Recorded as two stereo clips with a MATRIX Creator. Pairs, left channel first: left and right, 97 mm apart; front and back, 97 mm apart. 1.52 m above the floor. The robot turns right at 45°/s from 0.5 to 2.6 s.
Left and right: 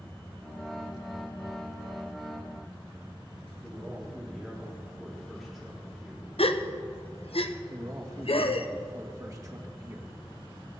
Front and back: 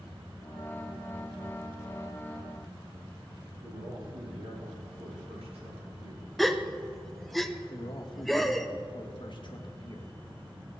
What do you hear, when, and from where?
3.6 s a man speaking: straight behind, 4 m
6.4 s a gasp: 90° left, 0.7 m
7.7 s a man speaking: 35° right, 1.7 m